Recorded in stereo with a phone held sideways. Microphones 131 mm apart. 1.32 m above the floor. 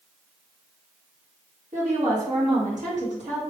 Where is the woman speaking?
65° right (ahead or behind), 1.7 m.